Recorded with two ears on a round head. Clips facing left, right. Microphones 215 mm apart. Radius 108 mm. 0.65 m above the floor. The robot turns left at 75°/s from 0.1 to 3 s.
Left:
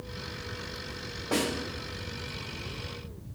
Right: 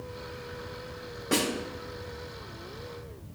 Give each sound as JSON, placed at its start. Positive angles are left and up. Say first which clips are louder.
{"t": 1.3, "sound": "a snare drum", "louder": "right 1 dB", "side_deg": -30, "distance_m": 1.4}